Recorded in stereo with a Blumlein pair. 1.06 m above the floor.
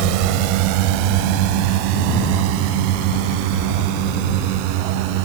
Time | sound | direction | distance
0.0 | a drone | 45° right | ?